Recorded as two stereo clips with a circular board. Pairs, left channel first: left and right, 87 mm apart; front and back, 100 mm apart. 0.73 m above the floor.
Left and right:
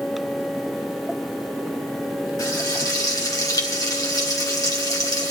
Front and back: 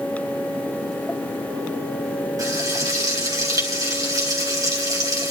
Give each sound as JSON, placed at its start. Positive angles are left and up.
{"t": 2.4, "sound": "frying", "azimuth_deg": 130, "distance_m": 2.5}